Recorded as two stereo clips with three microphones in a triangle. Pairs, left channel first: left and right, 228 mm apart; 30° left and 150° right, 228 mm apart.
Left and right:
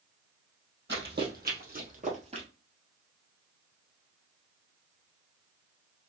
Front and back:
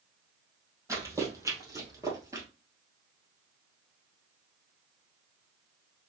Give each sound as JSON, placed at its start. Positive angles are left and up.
{"t": 0.9, "sound": "running footsteps", "azimuth_deg": -75, "distance_m": 2.0}